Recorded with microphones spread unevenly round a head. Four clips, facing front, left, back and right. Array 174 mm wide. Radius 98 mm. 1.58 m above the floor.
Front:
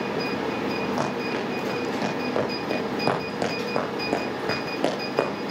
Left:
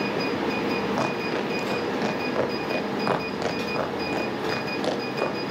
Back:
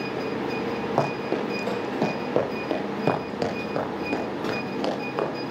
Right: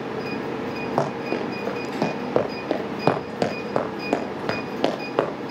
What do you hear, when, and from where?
1.0 s running footsteps: 135° right, 5 m; by 5.3 s 70° right, 3.5 m